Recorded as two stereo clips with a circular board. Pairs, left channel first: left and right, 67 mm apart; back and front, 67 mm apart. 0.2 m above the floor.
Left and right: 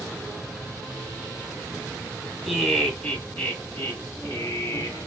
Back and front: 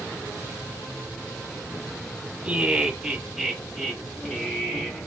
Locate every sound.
2.4 s laughter: 5° right, 1.1 m; by 5.1 s 110° left, 1.6 m